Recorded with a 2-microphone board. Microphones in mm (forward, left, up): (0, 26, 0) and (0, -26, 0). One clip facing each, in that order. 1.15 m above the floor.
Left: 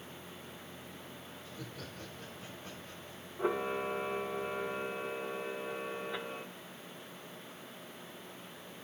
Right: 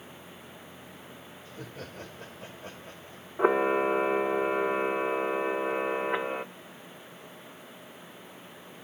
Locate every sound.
1.4 s laughter: 45° right (ahead or behind), 1.8 m
3.4 s a camera shutter: 60° right (ahead or behind), 0.7 m